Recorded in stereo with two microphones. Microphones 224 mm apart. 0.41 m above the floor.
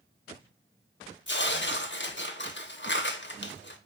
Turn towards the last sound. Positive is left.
turn(degrees=55)  # may be behind; listen again after turning